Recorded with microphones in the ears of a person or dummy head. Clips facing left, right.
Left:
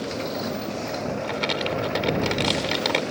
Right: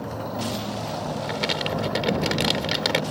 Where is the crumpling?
5° right (ahead or behind).